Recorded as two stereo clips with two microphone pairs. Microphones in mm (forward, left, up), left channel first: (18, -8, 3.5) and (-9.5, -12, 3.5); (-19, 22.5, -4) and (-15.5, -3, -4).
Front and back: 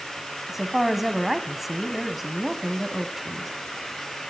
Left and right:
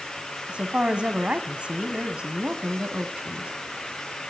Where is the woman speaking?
95° right, 1.9 m.